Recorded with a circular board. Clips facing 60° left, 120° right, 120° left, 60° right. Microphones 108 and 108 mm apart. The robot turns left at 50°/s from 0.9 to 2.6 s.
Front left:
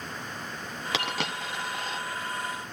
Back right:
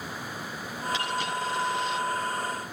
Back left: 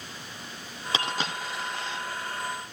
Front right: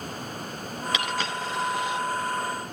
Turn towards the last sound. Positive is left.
turn(degrees=-20)